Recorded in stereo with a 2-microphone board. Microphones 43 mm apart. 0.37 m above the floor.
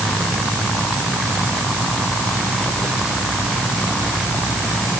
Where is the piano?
I don't hear a piano.